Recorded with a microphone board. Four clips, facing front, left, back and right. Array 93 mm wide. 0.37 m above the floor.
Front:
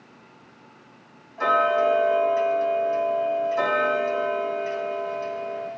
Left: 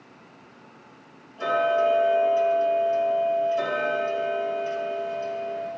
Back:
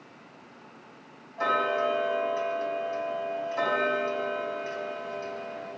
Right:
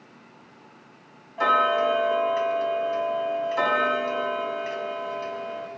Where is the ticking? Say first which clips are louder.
Right 1 dB, front 6 dB; 90° right, 3.5 m.